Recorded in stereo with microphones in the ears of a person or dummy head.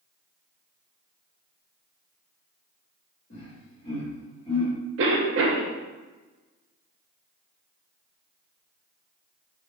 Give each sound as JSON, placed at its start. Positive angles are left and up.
{"t": 3.3, "sound": "laughter", "side_deg": 50, "distance_m": 1.8}
{"t": 5.0, "sound": "a cough", "side_deg": -65, "distance_m": 0.8}